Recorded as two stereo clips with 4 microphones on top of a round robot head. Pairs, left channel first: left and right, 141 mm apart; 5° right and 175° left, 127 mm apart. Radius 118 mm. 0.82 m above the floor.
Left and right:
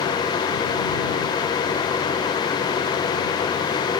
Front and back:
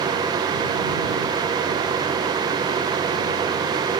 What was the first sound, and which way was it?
Only background noise.